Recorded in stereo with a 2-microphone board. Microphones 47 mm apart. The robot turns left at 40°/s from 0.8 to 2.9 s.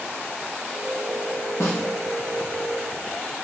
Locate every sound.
1.6 s a snare drum: 80° left, 5 m; by 1.8 s 85° left, 5 m